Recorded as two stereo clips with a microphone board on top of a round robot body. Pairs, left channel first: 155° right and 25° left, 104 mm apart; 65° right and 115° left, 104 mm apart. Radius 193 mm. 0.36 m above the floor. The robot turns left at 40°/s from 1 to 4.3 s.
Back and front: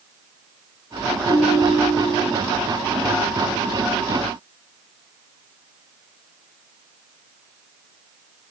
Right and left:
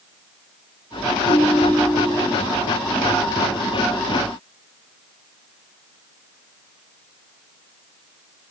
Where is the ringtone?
70° left, 2.5 m; by 2.4 s 25° left, 2.5 m.